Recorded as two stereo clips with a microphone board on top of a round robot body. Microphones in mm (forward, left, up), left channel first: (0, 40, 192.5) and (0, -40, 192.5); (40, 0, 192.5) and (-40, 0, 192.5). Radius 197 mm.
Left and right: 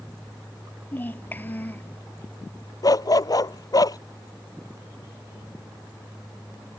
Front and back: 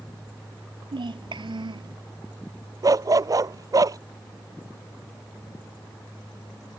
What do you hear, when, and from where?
0.9 s a child speaking: 160° left
2.8 s a dog barking: 135° left